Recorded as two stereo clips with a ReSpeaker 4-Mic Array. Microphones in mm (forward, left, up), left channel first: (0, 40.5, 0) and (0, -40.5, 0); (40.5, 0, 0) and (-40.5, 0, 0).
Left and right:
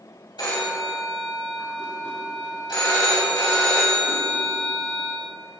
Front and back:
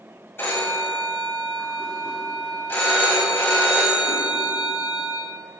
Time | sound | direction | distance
0.4 | a phone ringing | 60° left | 3 m